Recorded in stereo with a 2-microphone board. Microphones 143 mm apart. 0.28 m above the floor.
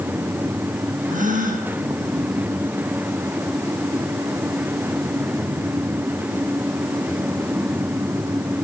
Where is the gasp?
60° right (ahead or behind), 4.5 m.